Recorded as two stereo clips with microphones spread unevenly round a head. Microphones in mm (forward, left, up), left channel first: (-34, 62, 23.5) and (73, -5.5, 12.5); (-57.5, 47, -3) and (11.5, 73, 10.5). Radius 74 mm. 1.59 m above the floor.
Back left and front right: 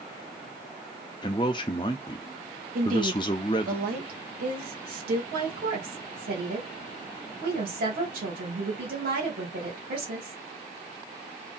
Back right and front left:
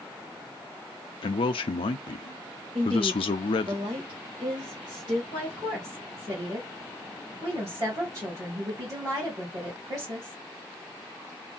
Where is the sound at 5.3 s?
50° right, 2 m.